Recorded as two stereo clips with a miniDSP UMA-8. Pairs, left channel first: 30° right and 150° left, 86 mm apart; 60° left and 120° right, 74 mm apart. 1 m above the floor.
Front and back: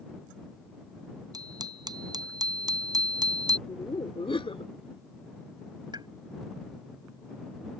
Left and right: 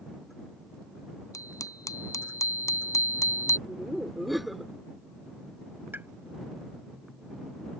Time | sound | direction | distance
1.3 | a bicycle bell | 105° left | ?
3.7 | laughter | 30° right | ?
5.9 | a pop | straight behind | ?